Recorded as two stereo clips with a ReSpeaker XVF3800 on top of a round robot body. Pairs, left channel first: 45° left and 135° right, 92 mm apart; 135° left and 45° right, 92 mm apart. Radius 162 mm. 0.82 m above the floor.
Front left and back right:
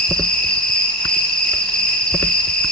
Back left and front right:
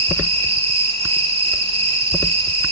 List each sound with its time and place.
0.0 s an insect: 35° right, 7 m